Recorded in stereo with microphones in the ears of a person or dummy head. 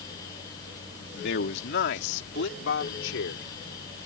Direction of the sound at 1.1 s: 65° left (ahead or behind).